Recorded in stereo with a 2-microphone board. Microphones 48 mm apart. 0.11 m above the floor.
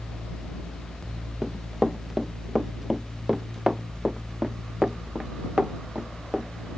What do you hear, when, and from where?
1.4 s running footsteps: 10° right (ahead or behind); by 6.5 s 15° right (ahead or behind)